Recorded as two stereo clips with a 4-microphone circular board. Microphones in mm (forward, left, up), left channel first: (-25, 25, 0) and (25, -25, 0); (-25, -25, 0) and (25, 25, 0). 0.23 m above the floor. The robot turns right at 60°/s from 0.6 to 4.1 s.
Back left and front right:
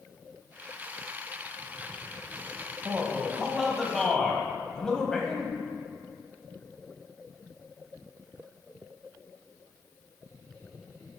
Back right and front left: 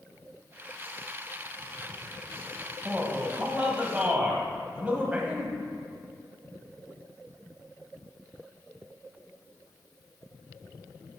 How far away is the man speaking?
About 1.0 m.